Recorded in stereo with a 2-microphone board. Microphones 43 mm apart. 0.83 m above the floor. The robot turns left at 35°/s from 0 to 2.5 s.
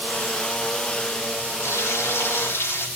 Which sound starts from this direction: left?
Frying, at 1.6 s.